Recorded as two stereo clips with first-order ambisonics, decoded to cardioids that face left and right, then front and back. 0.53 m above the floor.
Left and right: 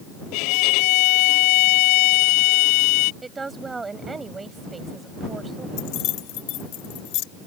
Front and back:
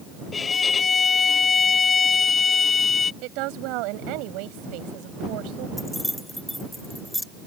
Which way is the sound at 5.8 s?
85° left.